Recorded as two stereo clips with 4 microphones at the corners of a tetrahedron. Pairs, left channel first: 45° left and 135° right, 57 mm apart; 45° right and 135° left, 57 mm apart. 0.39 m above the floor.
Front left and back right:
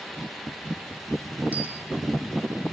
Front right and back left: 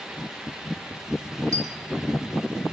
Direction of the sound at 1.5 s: 160° left.